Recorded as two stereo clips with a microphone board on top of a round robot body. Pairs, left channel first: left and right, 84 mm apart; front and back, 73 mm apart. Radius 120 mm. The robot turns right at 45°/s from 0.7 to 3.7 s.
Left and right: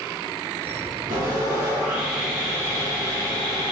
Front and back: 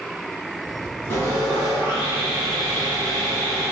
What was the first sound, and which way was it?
Sawing, 55° right.